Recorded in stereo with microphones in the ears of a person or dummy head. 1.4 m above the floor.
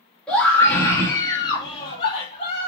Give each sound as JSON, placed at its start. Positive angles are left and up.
{"t": 0.3, "sound": "a scream", "side_deg": 5, "distance_m": 2.5}